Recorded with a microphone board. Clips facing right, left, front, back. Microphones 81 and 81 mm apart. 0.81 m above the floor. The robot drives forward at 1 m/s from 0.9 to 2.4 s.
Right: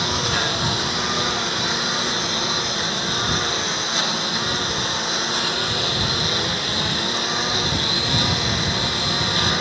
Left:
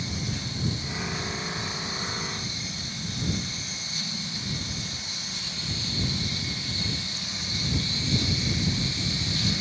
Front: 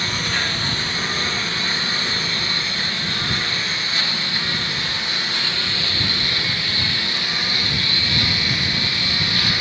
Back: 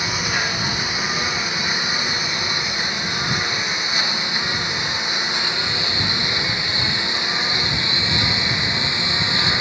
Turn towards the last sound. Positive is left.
turn(degrees=-110)